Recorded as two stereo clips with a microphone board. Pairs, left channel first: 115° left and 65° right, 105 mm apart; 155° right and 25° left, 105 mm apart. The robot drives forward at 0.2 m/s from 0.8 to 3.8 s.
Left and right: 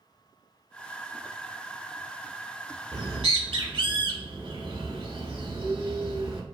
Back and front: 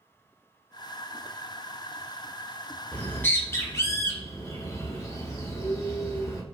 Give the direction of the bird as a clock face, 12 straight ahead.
3 o'clock.